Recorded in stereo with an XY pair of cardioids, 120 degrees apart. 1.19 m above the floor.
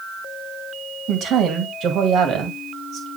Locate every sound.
1.1 s a woman speaking: 60° right, 2 m